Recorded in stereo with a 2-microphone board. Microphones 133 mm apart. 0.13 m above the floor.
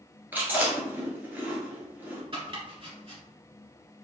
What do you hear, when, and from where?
0.3 s chewing: 15° right (ahead or behind), 1.7 m
2.3 s chopping: 40° right (ahead or behind), 1.8 m